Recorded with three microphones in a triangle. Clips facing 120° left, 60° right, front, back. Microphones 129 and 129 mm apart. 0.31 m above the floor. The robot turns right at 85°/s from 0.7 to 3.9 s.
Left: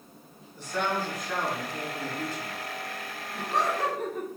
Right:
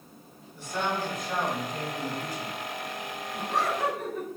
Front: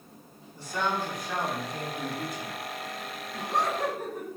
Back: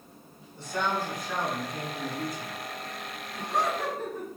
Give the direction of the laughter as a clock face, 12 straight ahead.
11 o'clock.